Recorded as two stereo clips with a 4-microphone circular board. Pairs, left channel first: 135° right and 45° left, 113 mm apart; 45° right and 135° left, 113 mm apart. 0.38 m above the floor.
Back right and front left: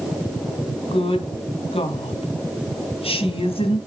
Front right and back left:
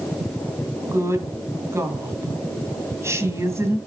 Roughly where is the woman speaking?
Behind.